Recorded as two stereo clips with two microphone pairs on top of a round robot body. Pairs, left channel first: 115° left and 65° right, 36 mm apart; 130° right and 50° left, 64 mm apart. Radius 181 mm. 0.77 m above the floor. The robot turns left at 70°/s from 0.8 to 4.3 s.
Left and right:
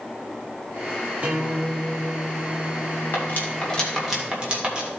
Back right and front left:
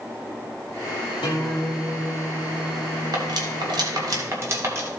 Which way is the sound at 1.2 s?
120° right.